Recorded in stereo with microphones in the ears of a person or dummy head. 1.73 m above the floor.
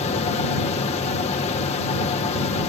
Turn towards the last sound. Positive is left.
turn(degrees=35)  # may be behind; listen again after turning